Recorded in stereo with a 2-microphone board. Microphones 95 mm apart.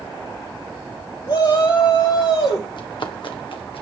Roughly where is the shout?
Left.